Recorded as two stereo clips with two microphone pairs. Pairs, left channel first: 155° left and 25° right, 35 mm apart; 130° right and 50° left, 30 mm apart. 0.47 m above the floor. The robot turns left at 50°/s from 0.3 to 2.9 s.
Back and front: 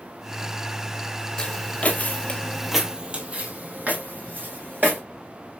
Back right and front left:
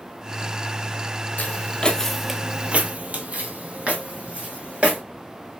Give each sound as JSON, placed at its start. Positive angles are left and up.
{"t": 1.4, "sound": "footsteps", "azimuth_deg": -140, "distance_m": 0.8}